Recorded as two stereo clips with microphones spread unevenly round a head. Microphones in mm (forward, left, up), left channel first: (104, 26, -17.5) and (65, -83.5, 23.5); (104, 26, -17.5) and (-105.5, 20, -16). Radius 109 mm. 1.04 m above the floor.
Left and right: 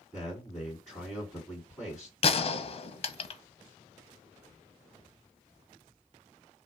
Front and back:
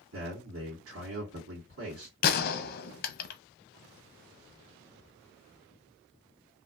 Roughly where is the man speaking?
Behind left.